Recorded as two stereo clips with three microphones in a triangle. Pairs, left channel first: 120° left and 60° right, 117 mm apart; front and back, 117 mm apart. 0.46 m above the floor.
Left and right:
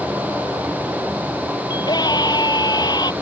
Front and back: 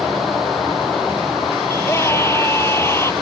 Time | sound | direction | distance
1.7 | a scream | 65° left | ?